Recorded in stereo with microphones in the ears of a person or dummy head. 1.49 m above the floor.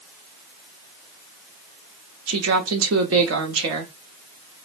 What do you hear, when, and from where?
2.3 s a woman speaking: 75° right (ahead or behind), 0.8 m